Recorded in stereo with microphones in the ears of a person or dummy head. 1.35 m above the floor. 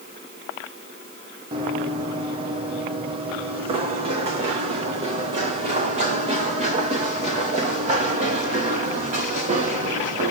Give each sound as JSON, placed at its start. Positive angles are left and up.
{"t": 1.5, "sound": "running footsteps", "side_deg": -30, "distance_m": 3.0}